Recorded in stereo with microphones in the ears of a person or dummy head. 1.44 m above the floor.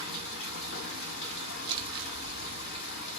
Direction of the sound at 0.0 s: 75° left (ahead or behind).